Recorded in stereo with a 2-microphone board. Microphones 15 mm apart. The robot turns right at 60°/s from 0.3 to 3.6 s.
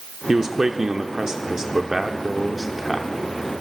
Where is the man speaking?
135° right, 0.8 m; by 3.1 s 35° left, 0.8 m.